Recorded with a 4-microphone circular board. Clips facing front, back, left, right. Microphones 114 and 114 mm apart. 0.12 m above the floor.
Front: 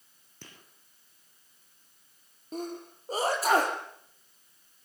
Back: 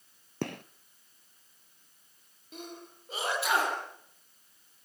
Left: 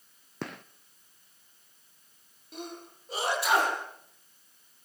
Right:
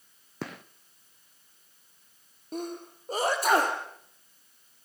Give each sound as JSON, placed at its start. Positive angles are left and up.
{"t": 0.4, "sound": "a gunshot", "azimuth_deg": 180, "distance_m": 0.8}
{"t": 2.5, "sound": "a sneeze", "azimuth_deg": -45, "distance_m": 4.0}